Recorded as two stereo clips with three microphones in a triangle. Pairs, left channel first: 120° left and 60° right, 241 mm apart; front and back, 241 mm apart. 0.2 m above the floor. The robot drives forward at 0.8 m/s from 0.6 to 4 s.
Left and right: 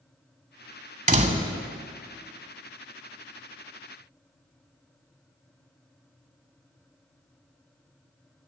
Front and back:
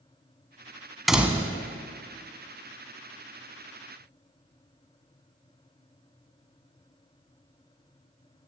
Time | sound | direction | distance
1.1 | a door slam | 90° right | 1.1 m